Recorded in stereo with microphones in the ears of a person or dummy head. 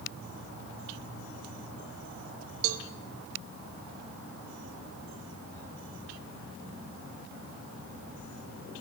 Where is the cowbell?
80° right, 1.6 m.